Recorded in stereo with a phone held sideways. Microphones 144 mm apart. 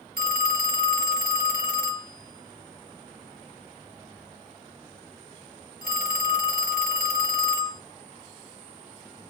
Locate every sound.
0.2 s a phone ringing: 80° right, 0.9 m